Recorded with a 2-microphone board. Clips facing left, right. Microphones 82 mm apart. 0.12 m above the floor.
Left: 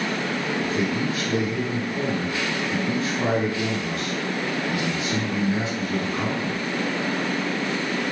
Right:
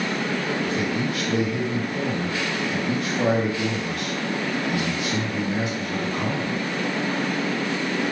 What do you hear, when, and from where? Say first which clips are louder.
0.6 s a man speaking: even; 25° left (ahead or behind), 1.7 m